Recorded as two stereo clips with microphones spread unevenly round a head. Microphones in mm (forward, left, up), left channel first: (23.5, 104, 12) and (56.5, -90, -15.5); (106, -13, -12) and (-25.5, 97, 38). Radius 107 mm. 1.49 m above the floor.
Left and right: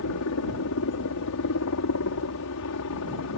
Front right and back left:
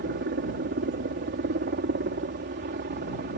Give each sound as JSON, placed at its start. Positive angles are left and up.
{"t": 0.0, "sound": "a helicopter", "azimuth_deg": 115}